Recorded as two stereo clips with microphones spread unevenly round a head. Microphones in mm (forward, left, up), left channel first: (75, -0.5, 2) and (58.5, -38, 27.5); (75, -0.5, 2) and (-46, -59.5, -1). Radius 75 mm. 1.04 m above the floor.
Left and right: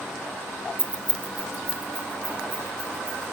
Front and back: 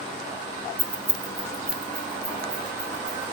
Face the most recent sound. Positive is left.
turn(degrees=-85)